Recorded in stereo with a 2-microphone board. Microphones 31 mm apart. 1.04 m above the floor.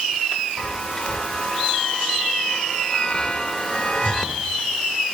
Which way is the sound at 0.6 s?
20° left (ahead or behind).